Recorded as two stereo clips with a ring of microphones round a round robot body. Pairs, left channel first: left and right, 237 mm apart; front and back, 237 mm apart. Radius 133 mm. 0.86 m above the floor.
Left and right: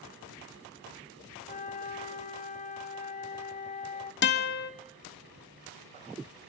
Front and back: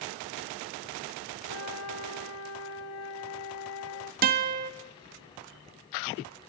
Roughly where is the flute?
Ahead left.